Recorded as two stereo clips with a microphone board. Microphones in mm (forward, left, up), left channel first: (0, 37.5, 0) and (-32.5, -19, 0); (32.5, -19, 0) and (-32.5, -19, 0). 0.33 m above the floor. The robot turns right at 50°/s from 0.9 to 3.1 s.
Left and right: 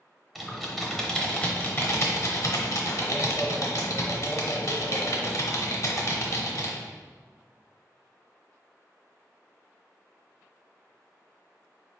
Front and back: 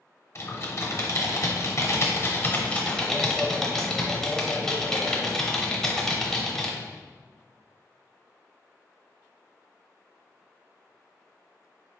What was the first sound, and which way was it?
Typing on a keyboard, 35° right.